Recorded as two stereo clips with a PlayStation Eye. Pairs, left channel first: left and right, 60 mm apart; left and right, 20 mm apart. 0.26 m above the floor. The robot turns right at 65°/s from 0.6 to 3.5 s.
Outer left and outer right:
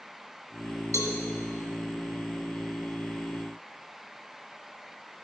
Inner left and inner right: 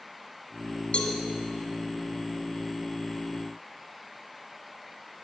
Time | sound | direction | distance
0.9 | a cowbell | 60° left (ahead or behind) | 1.5 m